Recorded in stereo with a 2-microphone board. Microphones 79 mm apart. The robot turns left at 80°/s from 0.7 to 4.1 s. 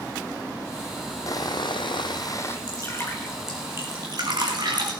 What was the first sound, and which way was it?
Sawing, 135° left.